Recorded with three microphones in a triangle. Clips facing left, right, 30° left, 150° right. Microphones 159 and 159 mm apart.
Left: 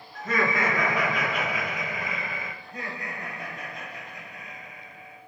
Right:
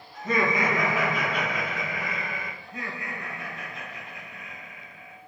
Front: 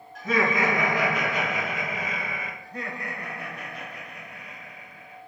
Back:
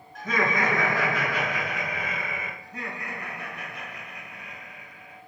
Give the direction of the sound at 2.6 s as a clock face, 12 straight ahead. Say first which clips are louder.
Even, front 2 dB; 10 o'clock.